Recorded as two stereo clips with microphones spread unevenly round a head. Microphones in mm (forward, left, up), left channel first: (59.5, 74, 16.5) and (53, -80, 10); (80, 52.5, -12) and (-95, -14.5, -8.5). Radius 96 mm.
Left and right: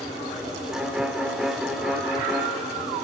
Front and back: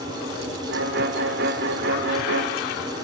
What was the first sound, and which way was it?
A violin, straight behind.